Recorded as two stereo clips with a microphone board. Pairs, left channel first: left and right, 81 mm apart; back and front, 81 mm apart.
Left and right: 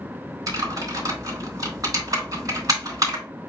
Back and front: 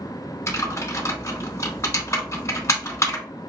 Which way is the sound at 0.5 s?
130° right.